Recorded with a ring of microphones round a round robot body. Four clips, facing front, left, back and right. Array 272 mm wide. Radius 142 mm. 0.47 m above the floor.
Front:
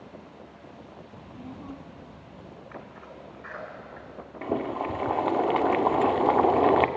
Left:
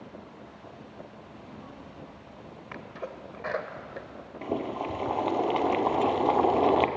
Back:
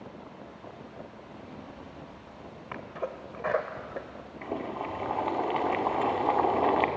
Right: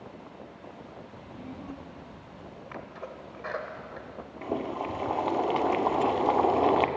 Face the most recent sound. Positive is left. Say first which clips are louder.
# left 1 dB, front 5 dB
turn(degrees=15)